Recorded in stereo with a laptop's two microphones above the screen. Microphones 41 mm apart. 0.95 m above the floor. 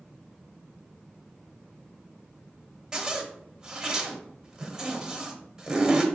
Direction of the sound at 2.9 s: 15° right (ahead or behind).